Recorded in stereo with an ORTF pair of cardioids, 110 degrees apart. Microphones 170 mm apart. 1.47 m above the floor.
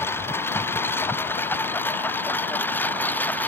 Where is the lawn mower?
10° left.